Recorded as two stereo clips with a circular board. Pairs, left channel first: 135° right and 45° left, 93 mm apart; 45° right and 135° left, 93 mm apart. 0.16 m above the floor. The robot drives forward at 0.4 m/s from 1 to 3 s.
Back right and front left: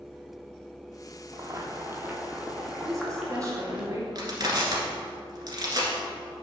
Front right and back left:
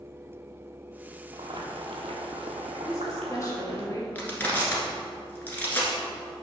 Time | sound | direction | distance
1.3 | boiling | 95° left | 0.9 m
2.9 | a woman speaking | 5° left | 2.0 m
4.2 | crushing | 20° left | 1.6 m